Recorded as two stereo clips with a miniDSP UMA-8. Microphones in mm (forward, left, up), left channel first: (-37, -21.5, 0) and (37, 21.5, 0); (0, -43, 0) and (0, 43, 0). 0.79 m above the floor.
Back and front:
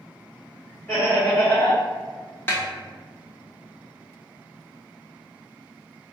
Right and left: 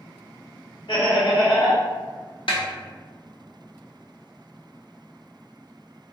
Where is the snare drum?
85° right, 1.0 m.